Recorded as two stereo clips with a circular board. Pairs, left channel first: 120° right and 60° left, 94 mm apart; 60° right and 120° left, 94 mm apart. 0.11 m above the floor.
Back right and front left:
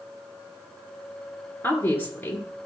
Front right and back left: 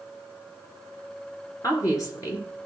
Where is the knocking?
I don't hear knocking.